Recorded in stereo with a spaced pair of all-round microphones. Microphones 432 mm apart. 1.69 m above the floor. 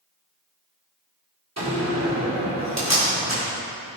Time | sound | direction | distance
1.6 | a door slam | 35° right (ahead or behind) | 3.5 m